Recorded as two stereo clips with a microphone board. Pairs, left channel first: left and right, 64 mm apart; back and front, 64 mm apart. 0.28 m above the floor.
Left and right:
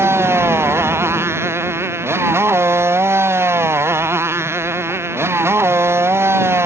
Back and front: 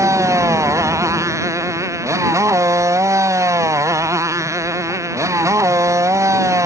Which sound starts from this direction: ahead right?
A motorcycle, at 0.0 s.